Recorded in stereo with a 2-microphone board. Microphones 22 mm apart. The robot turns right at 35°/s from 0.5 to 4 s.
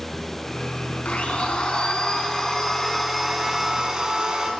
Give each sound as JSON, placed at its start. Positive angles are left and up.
{"t": 1.1, "sound": "a blender", "azimuth_deg": 110, "distance_m": 3.5}